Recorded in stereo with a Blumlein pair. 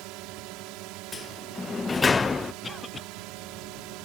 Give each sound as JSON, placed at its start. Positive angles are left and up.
{"t": 0.0, "sound": "a drone", "azimuth_deg": -40}
{"t": 1.1, "sound": "a sliding door", "azimuth_deg": 15}
{"t": 2.6, "sound": "a cough", "azimuth_deg": 10}